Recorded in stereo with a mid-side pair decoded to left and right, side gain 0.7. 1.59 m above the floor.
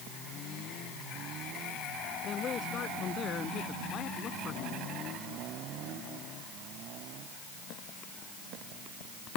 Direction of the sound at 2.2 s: 35° left.